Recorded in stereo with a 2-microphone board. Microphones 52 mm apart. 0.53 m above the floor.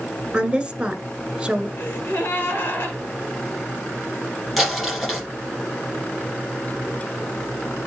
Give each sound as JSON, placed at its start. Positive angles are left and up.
{"t": 0.3, "sound": "a woman speaking", "side_deg": -15, "distance_m": 2.0}
{"t": 1.8, "sound": "a gasp", "side_deg": 45, "distance_m": 3.0}
{"t": 4.6, "sound": "crumpling", "side_deg": 5, "distance_m": 6.0}